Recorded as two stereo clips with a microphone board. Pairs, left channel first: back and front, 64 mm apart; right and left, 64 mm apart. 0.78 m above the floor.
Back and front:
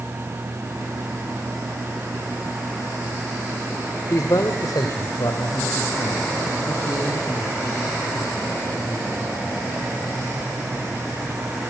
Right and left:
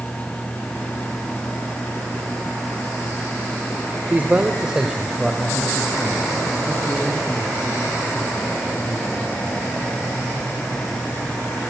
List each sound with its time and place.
4.1 s a man speaking: 150° left, 1.9 m; by 9.5 s 160° right, 9.5 m